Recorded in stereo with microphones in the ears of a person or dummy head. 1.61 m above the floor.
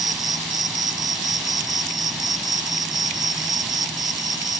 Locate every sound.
0.0 s an insect: centre (ahead or behind)